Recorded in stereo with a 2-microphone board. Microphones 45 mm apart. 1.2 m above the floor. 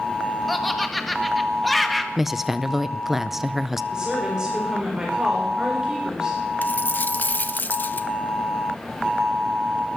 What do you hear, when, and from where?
0.5 s laughter: centre (ahead or behind), 1.3 m
2.2 s a woman speaking: 5° right (ahead or behind), 0.6 m
3.9 s a woman speaking: 15° right (ahead or behind), 4.5 m
6.6 s a dropped coin: 45° left (ahead or behind), 0.7 m